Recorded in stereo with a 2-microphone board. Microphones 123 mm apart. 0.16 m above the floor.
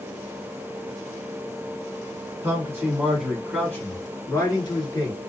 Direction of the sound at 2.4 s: 25° right (ahead or behind).